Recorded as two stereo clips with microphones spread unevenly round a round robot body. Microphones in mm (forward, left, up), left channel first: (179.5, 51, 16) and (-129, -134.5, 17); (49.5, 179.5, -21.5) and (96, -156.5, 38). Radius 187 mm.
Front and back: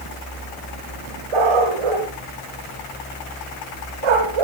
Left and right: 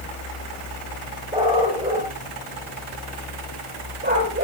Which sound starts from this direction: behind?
A dog barking, at 1.3 s.